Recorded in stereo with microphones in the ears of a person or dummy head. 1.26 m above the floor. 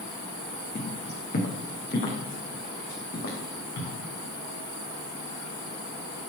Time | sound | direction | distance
0.8 | footsteps | 35° left (ahead or behind) | 3 m